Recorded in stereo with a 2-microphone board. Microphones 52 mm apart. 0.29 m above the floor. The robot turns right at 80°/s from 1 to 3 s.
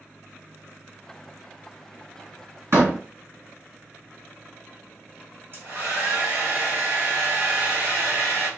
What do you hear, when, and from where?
2.7 s a door slam: 60° right (ahead or behind), 1.8 m; by 3.0 s 40° right (ahead or behind), 1.8 m
5.5 s a hair dryer: 40° right (ahead or behind), 1.7 m